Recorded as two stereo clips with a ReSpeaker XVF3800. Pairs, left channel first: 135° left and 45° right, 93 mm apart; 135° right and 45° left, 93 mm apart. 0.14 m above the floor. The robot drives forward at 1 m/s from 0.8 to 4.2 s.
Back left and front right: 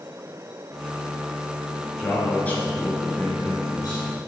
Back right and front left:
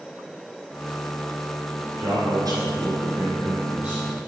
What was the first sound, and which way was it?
A man speaking, 55° left.